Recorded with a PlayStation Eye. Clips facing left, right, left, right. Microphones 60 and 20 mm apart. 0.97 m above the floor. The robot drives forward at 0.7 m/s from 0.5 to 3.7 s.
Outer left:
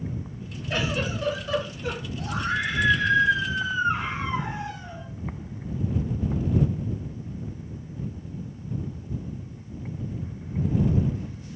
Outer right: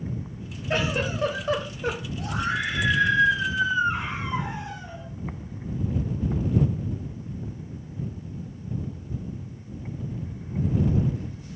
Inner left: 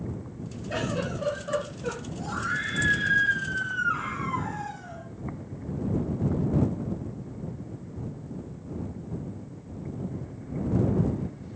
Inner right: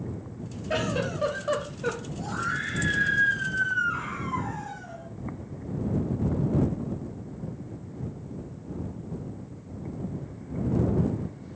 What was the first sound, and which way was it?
A giggle, 35° right (ahead or behind).